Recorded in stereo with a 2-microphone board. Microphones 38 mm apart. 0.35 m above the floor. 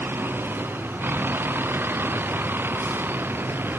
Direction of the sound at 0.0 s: 65° right (ahead or behind).